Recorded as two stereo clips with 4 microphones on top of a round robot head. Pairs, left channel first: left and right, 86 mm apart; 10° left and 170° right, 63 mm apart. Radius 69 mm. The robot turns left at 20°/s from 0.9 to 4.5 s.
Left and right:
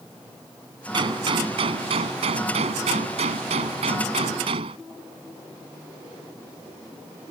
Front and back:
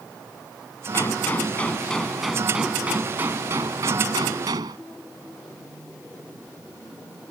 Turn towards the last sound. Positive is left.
turn(degrees=-130)